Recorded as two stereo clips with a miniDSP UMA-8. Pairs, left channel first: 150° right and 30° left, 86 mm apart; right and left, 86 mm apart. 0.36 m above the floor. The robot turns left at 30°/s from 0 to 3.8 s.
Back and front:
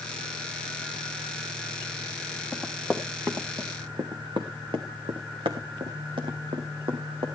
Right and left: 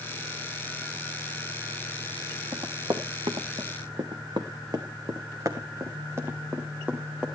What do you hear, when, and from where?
2.5 s running footsteps: 120° left, 2 m; by 7.3 s 15° left, 2.5 m